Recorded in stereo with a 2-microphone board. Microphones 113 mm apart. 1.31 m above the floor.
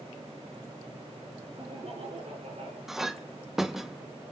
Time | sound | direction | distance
1.6 | laughter | 70° right (ahead or behind) | 5 m
2.9 | a clink | 5° right (ahead or behind) | 0.8 m